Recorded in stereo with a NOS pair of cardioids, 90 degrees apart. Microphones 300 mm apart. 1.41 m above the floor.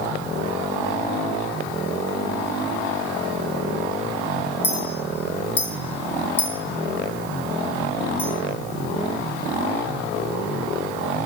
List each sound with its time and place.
4.6 s a clink: 5° left, 0.9 m